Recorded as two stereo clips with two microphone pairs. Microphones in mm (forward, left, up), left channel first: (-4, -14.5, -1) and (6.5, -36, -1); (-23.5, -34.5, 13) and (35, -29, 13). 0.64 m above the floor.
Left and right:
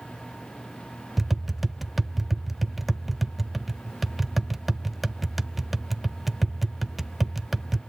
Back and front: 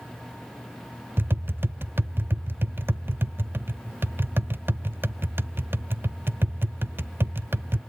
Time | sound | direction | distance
1.2 | tapping | 10° left | 0.6 m